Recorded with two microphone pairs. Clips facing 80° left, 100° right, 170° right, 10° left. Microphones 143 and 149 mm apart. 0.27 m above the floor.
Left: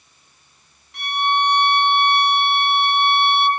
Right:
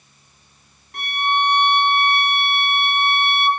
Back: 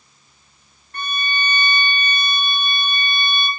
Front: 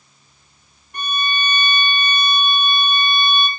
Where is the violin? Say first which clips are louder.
Left 1 dB, front 3 dB; 65° right, 1.0 m.